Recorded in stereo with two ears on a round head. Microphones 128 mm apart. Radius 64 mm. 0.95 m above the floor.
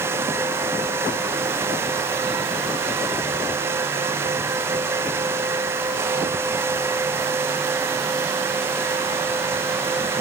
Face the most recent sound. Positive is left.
No sound to turn to.